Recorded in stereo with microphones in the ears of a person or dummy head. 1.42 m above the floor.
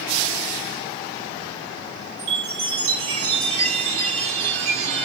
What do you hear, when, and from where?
2.2 s a chime: 30° right (ahead or behind), 3 m